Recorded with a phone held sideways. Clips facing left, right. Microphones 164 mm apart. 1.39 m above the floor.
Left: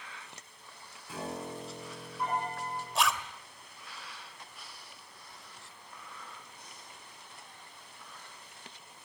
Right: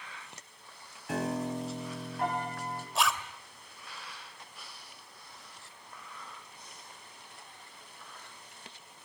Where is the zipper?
Centre (ahead or behind), 2 m.